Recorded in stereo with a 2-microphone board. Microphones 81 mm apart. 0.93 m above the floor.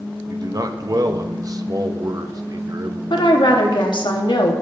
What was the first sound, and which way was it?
A man speaking, 50° right (ahead or behind).